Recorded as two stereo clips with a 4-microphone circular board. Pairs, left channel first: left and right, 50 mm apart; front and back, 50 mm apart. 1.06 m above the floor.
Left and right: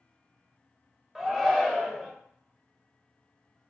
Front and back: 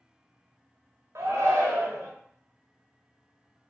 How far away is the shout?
About 0.7 m.